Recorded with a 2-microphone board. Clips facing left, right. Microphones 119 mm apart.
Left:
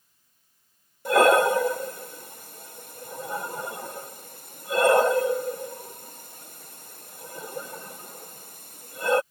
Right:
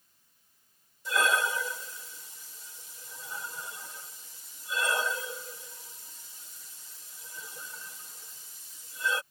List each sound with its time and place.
1.1 s breathing: 60° left (ahead or behind)